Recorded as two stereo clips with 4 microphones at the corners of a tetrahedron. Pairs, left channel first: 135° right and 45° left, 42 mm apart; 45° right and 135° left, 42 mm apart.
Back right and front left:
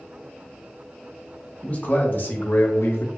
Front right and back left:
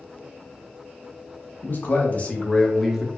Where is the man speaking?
85° right, 0.9 m; by 3.1 s 145° right, 0.6 m.